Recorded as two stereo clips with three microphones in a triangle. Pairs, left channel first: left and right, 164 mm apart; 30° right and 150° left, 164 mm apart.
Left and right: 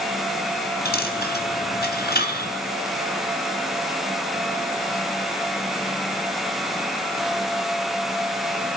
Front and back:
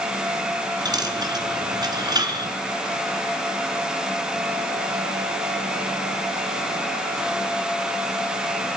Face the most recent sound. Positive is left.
turn(degrees=85)